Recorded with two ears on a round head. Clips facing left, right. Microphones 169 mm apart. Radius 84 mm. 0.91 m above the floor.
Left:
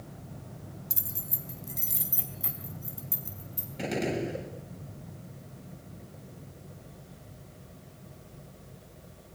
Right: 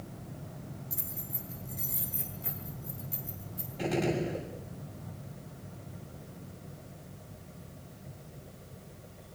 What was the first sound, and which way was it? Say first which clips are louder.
Keys jangling: even; 85° left.